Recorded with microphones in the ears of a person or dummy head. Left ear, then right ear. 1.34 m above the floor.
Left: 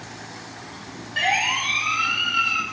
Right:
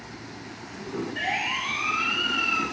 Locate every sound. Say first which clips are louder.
1.2 s a siren: left 7 dB; 40° left (ahead or behind), 3.5 m; by 2.6 s 10° left (ahead or behind), 3.5 m